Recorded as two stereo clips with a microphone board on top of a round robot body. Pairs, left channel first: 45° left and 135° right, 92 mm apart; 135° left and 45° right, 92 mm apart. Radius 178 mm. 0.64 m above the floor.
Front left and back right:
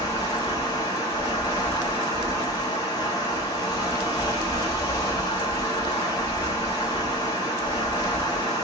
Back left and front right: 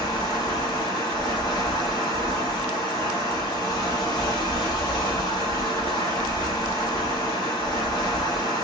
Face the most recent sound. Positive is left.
turn(degrees=90)